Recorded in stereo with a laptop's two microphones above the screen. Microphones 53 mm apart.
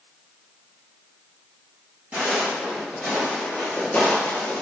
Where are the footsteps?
25° right (ahead or behind), 1.5 m; by 4.6 s 40° left (ahead or behind), 1.2 m.